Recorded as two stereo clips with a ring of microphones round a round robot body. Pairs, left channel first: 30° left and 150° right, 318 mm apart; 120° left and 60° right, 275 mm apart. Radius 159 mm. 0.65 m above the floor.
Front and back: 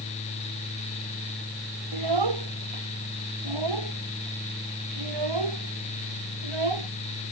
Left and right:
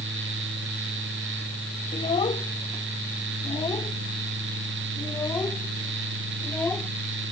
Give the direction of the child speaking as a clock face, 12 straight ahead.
5 o'clock.